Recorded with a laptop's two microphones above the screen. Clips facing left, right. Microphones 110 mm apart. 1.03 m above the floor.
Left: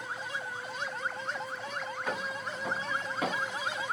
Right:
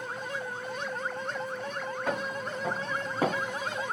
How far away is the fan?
About 1.9 m.